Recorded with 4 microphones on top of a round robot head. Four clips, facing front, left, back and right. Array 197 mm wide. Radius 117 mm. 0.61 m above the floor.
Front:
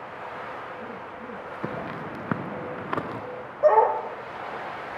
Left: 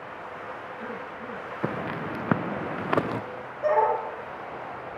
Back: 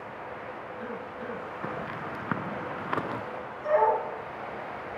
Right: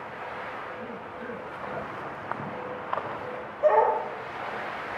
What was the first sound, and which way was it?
Footsteps, 70° left.